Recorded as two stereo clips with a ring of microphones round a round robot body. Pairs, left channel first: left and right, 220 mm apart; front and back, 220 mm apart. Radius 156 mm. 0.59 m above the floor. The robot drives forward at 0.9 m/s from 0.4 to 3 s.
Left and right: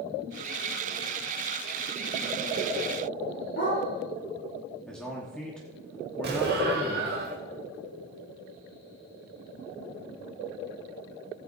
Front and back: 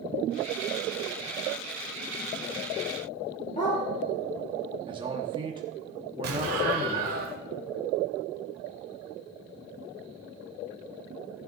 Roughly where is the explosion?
Behind right.